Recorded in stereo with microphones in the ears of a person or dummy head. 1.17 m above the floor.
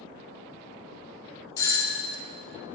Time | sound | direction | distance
1.6 | a doorbell | 15° left (ahead or behind) | 0.6 m